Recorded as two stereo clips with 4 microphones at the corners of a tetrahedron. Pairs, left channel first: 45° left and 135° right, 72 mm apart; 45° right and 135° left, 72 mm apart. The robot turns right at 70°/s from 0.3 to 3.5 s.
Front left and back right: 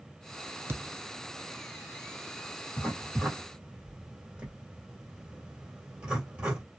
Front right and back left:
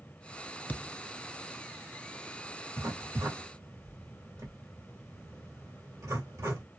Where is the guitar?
I don't hear a guitar.